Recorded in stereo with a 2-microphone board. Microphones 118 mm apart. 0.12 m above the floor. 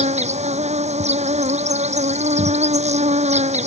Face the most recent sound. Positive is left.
turn(degrees=-75)  # may be behind; listen again after turning